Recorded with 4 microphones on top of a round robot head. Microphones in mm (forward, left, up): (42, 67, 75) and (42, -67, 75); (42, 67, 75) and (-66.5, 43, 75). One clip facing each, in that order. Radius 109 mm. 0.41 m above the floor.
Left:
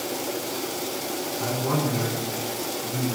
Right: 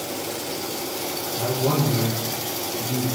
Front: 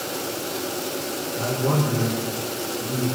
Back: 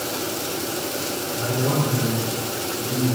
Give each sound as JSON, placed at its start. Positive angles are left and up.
{"t": 1.4, "sound": "a man speaking", "azimuth_deg": -60, "distance_m": 7.5}